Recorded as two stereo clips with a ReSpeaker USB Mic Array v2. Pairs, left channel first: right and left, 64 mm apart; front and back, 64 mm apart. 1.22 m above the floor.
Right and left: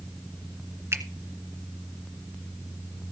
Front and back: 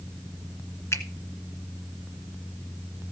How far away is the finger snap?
About 1.7 m.